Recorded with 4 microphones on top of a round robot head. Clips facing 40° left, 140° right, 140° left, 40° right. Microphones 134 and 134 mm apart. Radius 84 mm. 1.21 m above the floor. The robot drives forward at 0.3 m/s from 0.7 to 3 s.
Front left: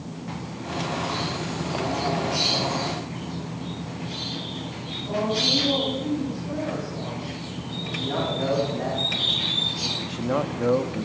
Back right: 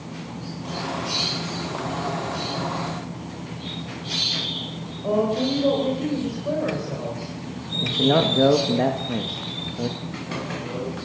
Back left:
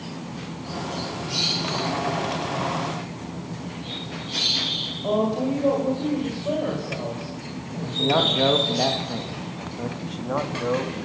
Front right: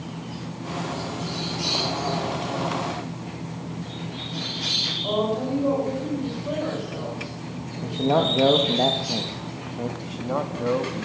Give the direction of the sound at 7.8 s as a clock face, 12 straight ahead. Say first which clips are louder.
Back right 9 dB, front right 1 dB; 4 o'clock.